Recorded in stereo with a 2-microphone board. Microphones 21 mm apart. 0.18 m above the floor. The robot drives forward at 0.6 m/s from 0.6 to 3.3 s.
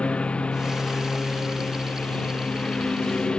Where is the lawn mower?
65° left (ahead or behind); by 3.4 s 55° left (ahead or behind).